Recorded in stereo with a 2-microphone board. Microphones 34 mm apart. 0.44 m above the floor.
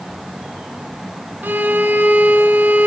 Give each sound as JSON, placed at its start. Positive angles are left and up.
{"t": 1.4, "sound": "a violin", "side_deg": -55, "distance_m": 4.0}